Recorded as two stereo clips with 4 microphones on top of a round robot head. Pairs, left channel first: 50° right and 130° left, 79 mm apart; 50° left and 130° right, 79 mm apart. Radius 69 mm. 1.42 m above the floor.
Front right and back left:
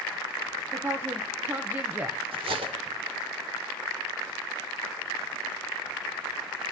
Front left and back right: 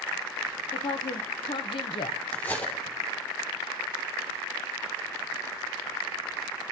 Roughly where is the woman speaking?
Ahead left.